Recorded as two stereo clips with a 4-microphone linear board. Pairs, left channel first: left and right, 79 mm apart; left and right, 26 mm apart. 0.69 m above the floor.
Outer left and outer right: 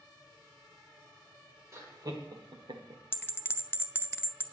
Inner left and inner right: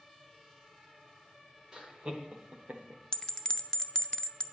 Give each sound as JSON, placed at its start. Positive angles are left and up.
{"t": 1.7, "sound": "laughter", "side_deg": -35, "distance_m": 2.5}
{"t": 3.1, "sound": "a bell", "side_deg": 30, "distance_m": 0.5}